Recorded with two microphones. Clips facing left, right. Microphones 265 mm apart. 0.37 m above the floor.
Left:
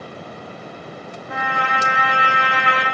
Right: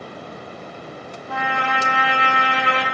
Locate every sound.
1.3 s a trumpet: 20° left (ahead or behind), 0.8 m